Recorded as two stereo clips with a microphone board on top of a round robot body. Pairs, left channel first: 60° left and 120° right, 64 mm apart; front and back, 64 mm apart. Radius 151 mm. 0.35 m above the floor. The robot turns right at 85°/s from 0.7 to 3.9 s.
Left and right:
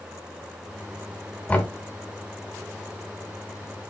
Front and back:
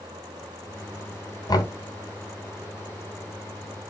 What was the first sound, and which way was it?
Knocking, 10° right.